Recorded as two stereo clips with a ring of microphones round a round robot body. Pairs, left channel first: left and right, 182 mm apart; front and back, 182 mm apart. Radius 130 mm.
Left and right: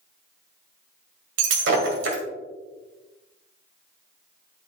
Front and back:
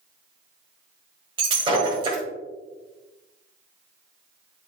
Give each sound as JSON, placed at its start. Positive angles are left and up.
{"t": 1.4, "sound": "breaking glass", "azimuth_deg": -110, "distance_m": 1.7}